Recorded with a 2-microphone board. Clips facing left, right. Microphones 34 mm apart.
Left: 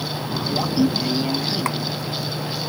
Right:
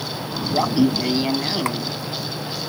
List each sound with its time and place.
0.5 s laughter: 25° right (ahead or behind)